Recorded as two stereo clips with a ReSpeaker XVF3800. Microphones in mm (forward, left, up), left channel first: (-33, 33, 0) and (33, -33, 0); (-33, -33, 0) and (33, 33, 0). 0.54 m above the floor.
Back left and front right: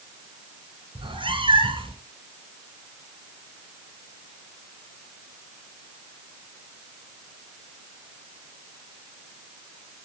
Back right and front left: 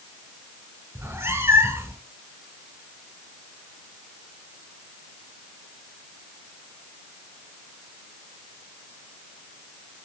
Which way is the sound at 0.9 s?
20° right.